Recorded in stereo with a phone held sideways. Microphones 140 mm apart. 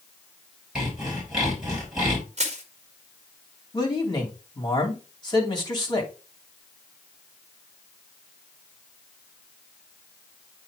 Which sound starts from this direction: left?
A man speaking, at 3.7 s.